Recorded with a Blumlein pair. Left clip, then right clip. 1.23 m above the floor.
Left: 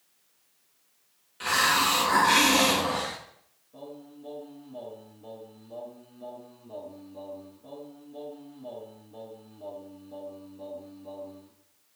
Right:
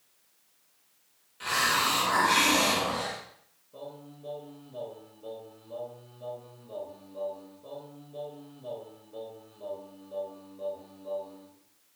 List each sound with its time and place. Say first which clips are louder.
1.4 s a hiss: left 3 dB; 20° left, 2 m
3.7 s singing: even; 10° right, 5 m